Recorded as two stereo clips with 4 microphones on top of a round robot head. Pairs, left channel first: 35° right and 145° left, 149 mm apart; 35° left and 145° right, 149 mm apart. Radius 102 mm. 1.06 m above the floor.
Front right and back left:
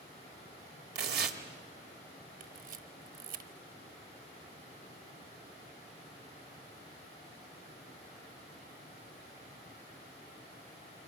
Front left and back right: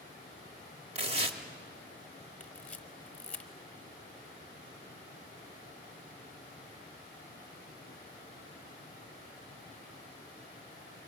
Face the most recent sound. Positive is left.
turn(degrees=115)